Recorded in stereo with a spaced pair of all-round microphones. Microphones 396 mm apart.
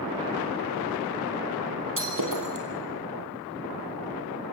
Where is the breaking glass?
55° right (ahead or behind), 3 m.